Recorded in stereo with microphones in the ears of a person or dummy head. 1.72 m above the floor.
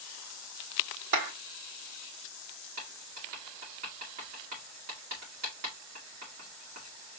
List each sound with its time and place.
1.1 s a clap: 65° right (ahead or behind), 1.5 m
2.8 s writing: 50° right (ahead or behind), 1.8 m